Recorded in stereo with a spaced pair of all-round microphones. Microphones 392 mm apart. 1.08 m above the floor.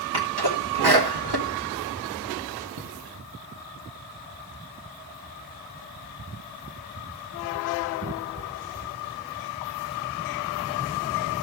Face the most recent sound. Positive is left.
turn(degrees=-75)  # may be behind; listen again after turning